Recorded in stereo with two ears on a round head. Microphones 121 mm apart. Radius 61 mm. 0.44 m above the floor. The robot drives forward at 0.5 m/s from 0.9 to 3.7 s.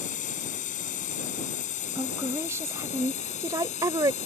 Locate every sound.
0.0 s a drone: 65° left (ahead or behind); by 4.3 s 60° left (ahead or behind)
1.9 s a woman speaking: 20° right (ahead or behind); by 4.2 s 30° right (ahead or behind)